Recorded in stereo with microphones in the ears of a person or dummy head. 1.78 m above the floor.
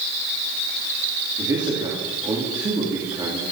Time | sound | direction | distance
1.4 | a man speaking | 25° right (ahead or behind) | 3.5 m